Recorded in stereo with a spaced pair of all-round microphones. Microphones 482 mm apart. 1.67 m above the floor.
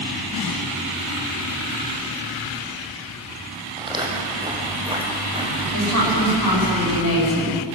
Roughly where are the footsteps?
Centre.